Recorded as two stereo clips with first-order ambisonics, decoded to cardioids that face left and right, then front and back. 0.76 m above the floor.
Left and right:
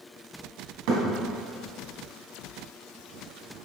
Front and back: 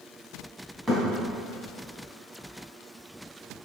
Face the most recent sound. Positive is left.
turn(degrees=-95)